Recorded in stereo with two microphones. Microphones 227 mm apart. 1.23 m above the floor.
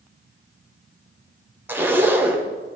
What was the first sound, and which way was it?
A zipper, 10° right (ahead or behind).